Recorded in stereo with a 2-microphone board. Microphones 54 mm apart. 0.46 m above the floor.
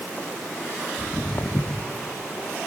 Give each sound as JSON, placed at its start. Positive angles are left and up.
{"t": 1.0, "sound": "footsteps", "side_deg": 60, "distance_m": 1.4}